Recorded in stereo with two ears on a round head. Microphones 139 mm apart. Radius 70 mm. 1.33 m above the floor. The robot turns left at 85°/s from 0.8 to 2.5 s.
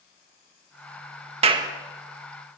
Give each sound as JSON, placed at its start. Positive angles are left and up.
{"t": 1.4, "sound": "a clap", "side_deg": -40, "distance_m": 1.7}